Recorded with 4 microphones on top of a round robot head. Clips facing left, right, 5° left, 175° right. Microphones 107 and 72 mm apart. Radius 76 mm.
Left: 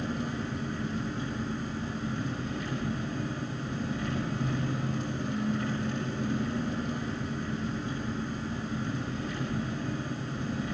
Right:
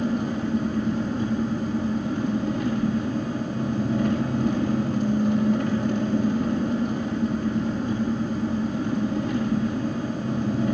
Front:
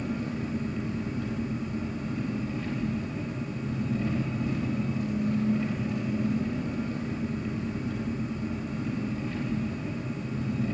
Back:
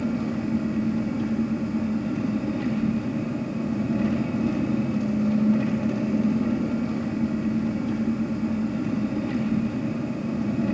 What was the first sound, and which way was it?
An engine running, 135° right.